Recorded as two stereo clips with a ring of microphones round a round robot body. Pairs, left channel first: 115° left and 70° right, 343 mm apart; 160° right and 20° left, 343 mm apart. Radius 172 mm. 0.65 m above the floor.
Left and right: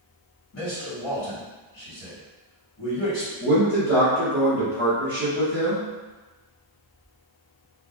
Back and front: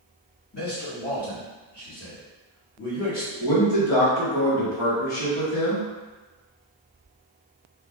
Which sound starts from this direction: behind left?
A man speaking, at 0.5 s.